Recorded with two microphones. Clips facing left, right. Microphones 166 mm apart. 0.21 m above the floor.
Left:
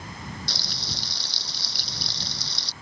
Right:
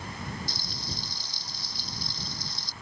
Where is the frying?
75° left (ahead or behind).